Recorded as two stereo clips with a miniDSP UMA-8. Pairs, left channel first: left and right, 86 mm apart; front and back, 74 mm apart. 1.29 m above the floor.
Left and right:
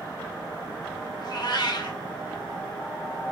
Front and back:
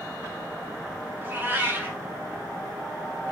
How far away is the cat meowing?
About 1.5 m.